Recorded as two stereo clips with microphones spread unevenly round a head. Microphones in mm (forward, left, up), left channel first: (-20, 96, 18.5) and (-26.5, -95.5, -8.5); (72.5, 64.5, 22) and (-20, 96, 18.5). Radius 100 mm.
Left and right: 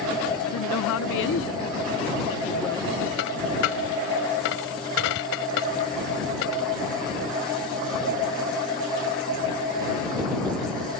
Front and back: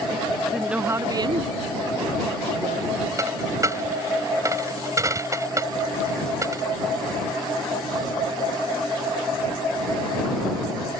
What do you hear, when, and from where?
0.5 s a woman speaking: 70° left; by 3.1 s 165° left
3.2 s a dropped coin: 100° left